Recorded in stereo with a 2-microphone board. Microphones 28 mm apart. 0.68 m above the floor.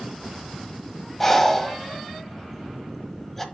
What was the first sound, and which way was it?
Breathing, 10° left (ahead or behind).